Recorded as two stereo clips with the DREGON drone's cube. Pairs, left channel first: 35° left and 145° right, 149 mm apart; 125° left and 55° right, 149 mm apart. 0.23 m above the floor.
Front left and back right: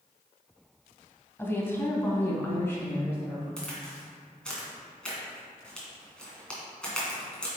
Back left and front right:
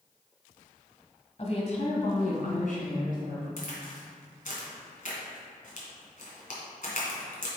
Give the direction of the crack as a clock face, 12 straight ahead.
8 o'clock.